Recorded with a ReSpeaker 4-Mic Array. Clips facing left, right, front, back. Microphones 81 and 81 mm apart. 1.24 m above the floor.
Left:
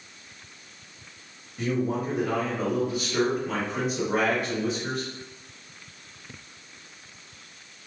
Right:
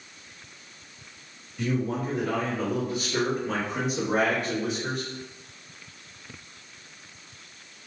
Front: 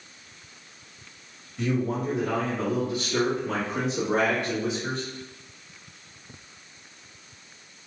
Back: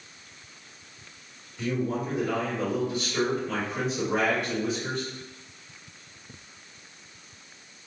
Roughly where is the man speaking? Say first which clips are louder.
Left 1 dB, front 2 dB; ahead left.